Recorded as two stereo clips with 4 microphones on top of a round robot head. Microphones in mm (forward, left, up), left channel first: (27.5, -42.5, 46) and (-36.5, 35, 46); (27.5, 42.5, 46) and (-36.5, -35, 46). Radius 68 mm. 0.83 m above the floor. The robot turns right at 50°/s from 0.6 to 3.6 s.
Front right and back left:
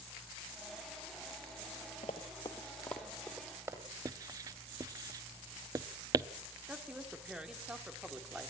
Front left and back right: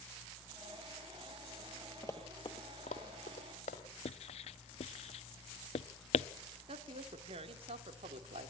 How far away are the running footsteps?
About 1.3 m.